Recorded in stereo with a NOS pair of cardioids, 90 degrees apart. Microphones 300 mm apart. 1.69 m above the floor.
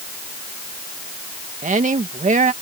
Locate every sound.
1.6 s a woman speaking: 25° right